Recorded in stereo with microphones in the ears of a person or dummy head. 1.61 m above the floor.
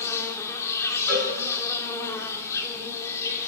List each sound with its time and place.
0.0 s an insect: 10° left (ahead or behind), 1.8 m
1.1 s a cowbell: 5° left (ahead or behind), 6.5 m